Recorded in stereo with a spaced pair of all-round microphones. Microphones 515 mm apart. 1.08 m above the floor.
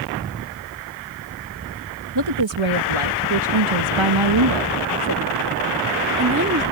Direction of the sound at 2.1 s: 50° right (ahead or behind).